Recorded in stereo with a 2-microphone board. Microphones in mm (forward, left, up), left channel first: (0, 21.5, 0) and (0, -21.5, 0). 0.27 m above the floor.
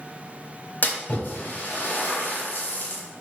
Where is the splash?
45° left (ahead or behind), 1.2 m.